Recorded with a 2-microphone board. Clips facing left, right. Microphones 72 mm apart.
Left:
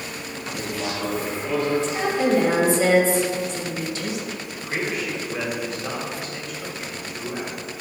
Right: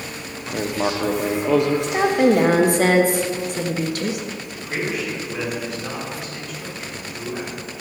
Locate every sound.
0.5 s writing: 70° right (ahead or behind), 0.8 m
1.8 s a woman speaking: 60° right (ahead or behind), 1.0 m
4.5 s a man speaking: 5° right (ahead or behind), 3 m